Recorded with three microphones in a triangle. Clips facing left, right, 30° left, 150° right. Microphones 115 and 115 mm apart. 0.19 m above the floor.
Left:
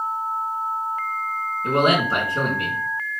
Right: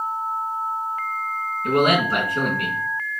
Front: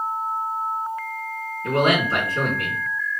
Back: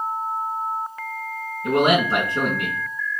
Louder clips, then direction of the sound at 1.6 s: Right 1 dB, back 2 dB; 145° left.